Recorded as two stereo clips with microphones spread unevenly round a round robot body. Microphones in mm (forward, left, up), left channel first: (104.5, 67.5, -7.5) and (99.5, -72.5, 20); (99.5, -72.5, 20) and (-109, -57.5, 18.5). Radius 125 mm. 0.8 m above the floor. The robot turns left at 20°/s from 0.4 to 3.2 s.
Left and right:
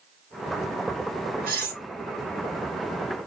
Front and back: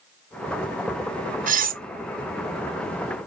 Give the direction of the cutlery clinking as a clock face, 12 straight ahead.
4 o'clock.